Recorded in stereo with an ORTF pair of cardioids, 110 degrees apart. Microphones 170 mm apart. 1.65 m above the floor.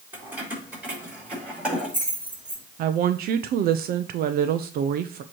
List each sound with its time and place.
0.1 s keys jangling: 10° right, 4 m; by 2.6 s 5° right, 6 m
2.8 s a woman speaking: 60° right, 0.7 m